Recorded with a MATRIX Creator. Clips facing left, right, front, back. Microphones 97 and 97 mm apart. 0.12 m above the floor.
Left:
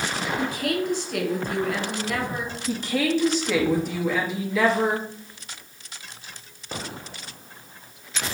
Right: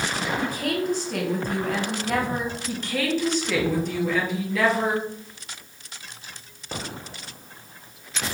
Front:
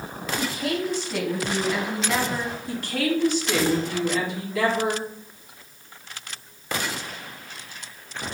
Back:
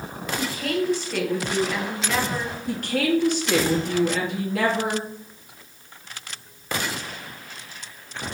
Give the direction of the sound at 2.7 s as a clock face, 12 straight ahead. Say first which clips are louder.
Left 4 dB, back 4 dB; 6 o'clock.